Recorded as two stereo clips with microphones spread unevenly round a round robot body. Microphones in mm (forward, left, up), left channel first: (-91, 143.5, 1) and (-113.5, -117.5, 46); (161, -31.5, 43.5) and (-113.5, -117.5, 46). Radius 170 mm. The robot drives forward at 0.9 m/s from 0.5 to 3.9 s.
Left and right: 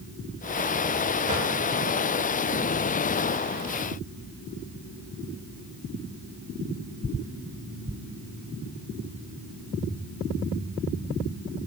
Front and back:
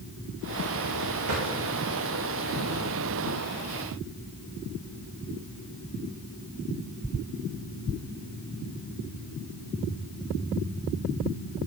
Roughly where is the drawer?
Behind right.